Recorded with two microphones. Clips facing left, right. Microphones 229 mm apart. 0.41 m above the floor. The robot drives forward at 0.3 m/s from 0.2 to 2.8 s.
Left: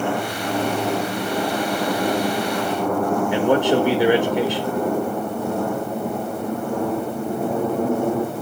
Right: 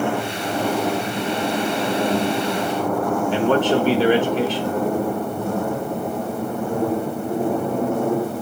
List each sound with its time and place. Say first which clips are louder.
3.3 s a man speaking: even; 15° left (ahead or behind), 1.4 m